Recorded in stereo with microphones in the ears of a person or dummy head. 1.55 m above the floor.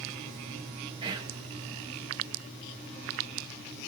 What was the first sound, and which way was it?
Whispering, 25° right (ahead or behind).